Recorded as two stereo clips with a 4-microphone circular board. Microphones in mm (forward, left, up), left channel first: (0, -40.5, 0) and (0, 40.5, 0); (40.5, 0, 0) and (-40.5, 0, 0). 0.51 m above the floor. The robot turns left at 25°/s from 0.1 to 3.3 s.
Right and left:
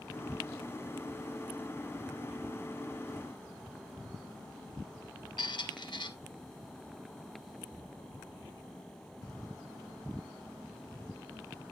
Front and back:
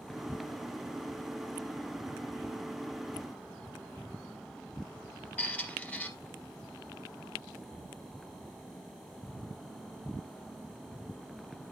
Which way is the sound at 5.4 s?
70° right.